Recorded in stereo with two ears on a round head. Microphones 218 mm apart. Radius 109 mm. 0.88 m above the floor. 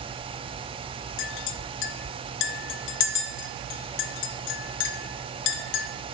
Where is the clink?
50° left (ahead or behind), 0.7 m.